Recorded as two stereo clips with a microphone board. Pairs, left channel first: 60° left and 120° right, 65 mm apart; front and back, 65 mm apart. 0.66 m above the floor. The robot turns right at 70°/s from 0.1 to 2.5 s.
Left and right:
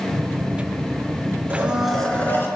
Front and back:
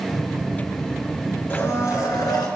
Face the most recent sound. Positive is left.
turn(degrees=10)